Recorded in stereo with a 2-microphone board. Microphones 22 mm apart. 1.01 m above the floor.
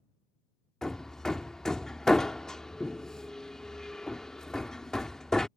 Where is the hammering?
30° left (ahead or behind).